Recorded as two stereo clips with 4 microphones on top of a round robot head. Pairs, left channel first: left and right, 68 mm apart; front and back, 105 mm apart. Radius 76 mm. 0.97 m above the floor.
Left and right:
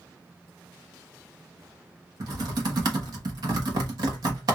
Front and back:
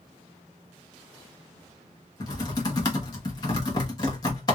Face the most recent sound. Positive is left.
turn(degrees=-60)